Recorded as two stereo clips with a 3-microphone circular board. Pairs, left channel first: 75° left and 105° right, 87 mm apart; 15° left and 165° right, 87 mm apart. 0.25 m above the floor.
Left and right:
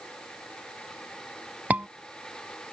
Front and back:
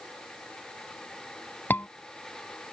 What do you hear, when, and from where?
1.7 s a scream: 40° right